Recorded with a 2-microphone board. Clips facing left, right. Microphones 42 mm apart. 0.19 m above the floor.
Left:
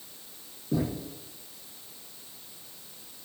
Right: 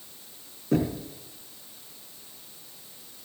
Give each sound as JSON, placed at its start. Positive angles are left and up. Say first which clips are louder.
{"t": 0.7, "sound": "knocking", "louder": "right 4 dB", "side_deg": -65, "distance_m": 3.5}